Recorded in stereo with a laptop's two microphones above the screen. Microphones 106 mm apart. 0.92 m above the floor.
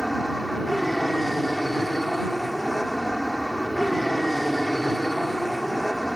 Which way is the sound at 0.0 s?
Centre (ahead or behind).